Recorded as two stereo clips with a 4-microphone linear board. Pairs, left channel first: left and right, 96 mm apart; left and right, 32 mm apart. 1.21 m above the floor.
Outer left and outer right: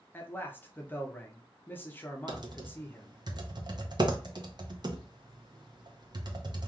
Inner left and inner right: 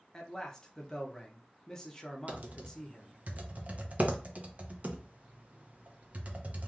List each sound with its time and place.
0.1 s a man speaking: 20° left (ahead or behind), 0.6 m
2.3 s typing on a keyboard: 50° right (ahead or behind), 0.5 m